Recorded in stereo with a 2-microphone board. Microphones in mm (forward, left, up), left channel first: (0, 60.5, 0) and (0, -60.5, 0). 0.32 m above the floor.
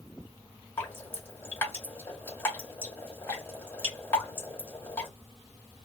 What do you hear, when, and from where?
0.8 s dripping: 15° left (ahead or behind), 1.6 m